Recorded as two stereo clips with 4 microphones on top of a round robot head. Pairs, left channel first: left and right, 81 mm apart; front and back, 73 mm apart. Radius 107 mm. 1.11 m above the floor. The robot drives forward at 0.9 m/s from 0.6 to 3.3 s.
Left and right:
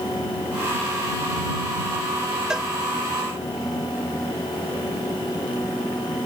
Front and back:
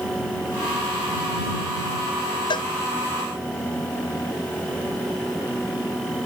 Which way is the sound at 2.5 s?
10° right.